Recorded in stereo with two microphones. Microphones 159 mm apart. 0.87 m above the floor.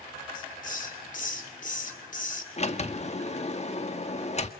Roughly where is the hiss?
Left.